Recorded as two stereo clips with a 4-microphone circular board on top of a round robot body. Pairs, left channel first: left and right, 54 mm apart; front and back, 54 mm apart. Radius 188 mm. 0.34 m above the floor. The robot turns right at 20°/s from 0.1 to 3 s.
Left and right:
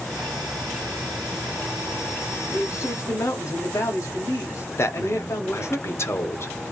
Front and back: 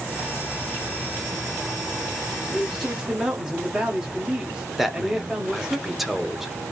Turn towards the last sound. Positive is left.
turn(degrees=95)